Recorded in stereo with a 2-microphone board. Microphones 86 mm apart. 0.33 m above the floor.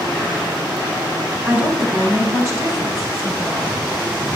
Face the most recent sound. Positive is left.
turn(degrees=-45)  # may be behind; listen again after turning